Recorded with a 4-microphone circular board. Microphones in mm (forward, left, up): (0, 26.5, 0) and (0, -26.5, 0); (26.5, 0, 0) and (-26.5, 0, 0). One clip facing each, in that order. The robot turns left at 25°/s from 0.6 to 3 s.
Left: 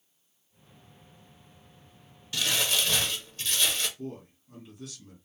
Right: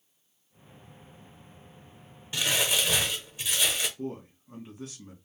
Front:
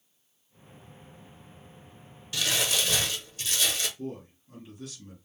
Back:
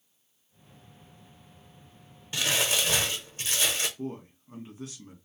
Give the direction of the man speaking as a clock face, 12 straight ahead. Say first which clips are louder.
Right 3 dB, back 1 dB; 4 o'clock.